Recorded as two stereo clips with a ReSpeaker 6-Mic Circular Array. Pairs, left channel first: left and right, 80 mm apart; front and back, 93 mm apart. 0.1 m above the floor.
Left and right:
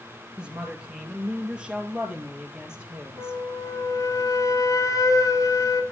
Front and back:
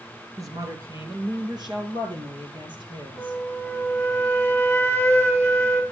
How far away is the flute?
About 1.2 m.